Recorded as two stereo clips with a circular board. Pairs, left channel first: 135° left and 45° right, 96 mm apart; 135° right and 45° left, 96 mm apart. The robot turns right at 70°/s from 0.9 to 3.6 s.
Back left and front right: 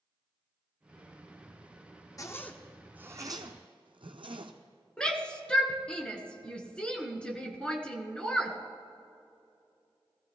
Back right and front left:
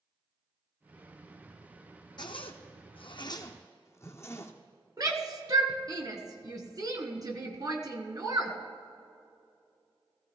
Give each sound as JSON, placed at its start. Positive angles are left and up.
{"t": 2.2, "sound": "a zipper", "azimuth_deg": -175, "distance_m": 1.0}
{"t": 5.0, "sound": "a shout", "azimuth_deg": 60, "distance_m": 1.4}